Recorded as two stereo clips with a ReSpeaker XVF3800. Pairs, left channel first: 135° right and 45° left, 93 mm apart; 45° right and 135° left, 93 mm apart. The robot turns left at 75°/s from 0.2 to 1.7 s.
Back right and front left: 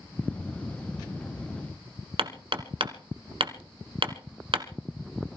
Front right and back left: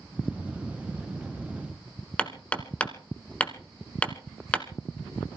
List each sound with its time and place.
2.2 s hammering: 30° left, 1.4 m